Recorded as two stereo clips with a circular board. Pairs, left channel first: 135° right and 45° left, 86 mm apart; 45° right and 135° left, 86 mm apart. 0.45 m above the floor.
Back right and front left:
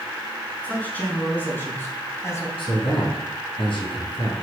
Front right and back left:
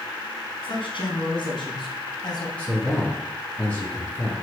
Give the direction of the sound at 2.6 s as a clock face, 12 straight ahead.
4 o'clock.